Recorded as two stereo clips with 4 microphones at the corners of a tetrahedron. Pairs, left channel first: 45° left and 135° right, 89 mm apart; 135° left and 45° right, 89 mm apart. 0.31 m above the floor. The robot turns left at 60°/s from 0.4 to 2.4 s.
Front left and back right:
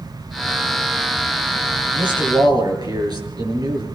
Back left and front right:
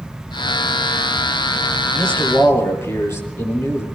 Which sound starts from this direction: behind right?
A man speaking, at 1.9 s.